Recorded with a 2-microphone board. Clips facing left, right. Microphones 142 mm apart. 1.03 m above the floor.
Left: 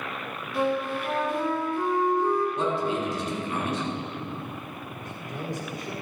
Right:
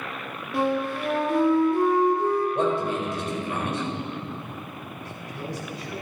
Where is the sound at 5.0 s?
55° left (ahead or behind), 3 m.